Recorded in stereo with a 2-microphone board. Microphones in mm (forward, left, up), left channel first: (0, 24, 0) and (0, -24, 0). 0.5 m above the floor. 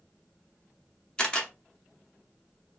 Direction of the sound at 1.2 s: 20° left (ahead or behind).